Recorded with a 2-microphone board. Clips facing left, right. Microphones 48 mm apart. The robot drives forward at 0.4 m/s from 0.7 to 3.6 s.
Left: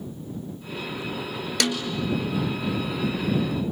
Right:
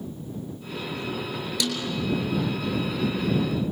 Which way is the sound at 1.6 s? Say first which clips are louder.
Left 4 dB; 60° left (ahead or behind).